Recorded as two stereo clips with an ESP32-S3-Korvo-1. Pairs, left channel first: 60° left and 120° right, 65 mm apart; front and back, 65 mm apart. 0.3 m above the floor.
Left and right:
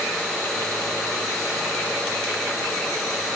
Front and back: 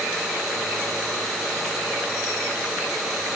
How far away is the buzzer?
No buzzer in this recording.